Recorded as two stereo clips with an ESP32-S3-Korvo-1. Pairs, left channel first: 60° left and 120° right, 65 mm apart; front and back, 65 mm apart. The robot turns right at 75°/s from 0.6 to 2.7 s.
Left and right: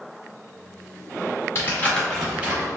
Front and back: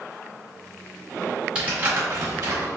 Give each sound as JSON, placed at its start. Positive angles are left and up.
{"t": 1.6, "sound": "crumpling", "azimuth_deg": 105, "distance_m": 1.7}